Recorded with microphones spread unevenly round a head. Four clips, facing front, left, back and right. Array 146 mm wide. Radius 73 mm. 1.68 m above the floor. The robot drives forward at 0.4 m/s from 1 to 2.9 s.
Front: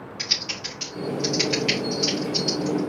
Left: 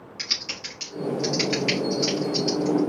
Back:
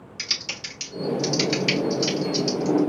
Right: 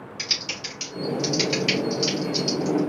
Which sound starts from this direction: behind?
Typing on a keyboard, at 0.2 s.